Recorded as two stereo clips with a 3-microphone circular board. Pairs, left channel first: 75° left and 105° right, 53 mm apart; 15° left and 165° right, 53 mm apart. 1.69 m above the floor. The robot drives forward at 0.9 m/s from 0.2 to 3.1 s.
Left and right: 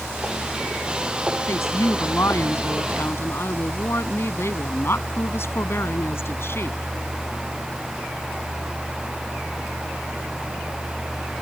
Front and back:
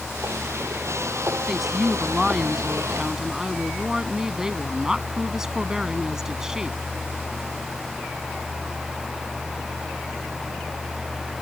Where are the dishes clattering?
I don't hear dishes clattering.